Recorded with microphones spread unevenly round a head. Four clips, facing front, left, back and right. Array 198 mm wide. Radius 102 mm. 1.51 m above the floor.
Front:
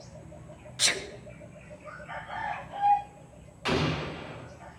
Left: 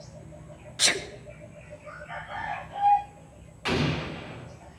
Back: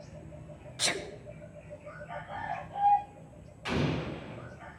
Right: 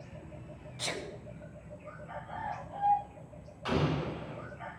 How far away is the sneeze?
About 1.8 m.